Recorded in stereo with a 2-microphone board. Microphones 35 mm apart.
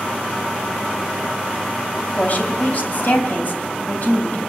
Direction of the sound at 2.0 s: 45° left (ahead or behind).